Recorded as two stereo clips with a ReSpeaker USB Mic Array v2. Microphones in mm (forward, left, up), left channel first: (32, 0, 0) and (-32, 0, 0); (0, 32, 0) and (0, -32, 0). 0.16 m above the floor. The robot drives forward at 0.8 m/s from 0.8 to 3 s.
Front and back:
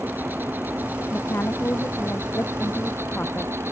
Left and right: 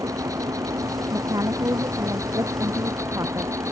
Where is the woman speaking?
55° right; by 3.5 s 60° right.